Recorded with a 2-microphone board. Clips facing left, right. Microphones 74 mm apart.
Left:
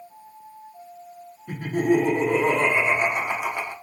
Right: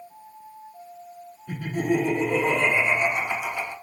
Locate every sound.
1.5 s laughter: 50° left (ahead or behind), 1.2 m